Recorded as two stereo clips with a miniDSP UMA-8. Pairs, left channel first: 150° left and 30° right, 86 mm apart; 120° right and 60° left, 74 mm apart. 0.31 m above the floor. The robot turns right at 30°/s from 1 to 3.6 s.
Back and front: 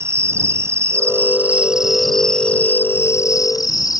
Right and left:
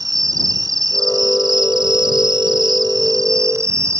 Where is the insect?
30° left; by 4.0 s 105° left.